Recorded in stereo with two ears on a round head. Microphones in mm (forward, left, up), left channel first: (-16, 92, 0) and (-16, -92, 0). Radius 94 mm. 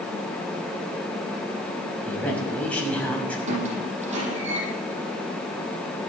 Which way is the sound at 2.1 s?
5° left (ahead or behind).